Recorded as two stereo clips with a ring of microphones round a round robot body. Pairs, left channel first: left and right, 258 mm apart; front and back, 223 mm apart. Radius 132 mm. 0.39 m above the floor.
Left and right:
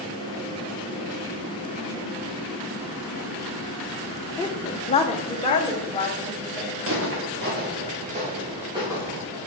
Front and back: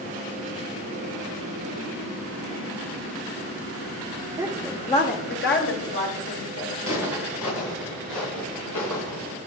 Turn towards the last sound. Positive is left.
turn(degrees=-10)